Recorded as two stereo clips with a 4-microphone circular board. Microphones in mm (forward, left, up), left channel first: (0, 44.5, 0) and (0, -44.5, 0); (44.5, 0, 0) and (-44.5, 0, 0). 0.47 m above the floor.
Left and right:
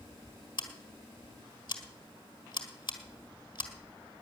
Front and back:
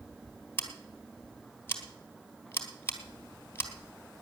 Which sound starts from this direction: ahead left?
Scissors, at 0.6 s.